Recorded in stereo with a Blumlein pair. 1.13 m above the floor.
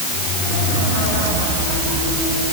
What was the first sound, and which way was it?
Only background noise.